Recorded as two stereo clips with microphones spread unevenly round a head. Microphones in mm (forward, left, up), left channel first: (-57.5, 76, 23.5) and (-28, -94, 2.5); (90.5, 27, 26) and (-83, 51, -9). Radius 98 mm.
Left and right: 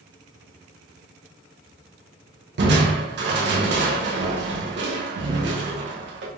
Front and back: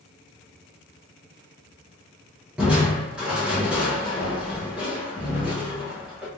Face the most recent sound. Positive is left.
turn(degrees=-100)